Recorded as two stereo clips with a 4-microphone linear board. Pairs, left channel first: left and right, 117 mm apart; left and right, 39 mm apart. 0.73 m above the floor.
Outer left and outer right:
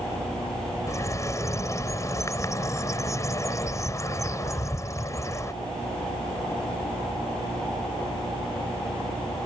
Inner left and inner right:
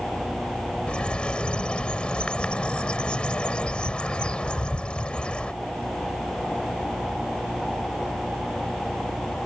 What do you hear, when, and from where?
0.9 s a bird: 25° left (ahead or behind)